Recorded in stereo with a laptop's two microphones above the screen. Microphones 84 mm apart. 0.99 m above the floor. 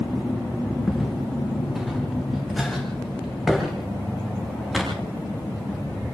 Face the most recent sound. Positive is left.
turn(degrees=0)  # may be behind; listen again after turning